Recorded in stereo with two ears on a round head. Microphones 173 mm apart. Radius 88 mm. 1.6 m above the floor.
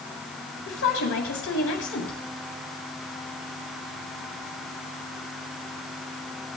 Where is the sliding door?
No sliding door in this recording.